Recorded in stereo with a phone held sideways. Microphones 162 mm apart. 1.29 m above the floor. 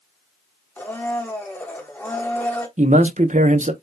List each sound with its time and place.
0.8 s a blender: 10° left (ahead or behind), 1.1 m
2.8 s a man speaking: 50° right (ahead or behind), 0.8 m